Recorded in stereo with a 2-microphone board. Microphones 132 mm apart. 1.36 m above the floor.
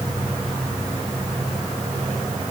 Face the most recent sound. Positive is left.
No sound to turn to.